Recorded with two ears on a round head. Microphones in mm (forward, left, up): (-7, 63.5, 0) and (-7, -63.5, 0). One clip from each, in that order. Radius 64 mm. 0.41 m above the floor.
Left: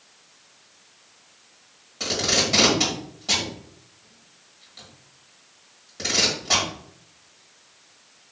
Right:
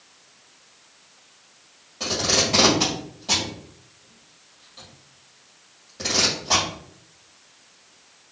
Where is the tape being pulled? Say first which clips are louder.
Right 1 dB; 25° left (ahead or behind), 1.8 m.